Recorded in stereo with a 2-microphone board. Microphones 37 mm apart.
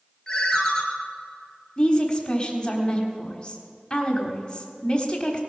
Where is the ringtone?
15° left (ahead or behind), 2 m.